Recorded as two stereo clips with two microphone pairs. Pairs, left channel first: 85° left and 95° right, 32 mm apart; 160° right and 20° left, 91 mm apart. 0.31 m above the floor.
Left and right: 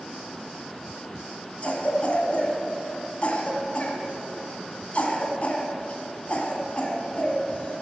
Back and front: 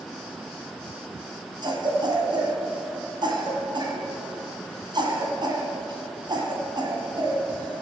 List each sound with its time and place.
1.6 s a cough: 45° left, 2 m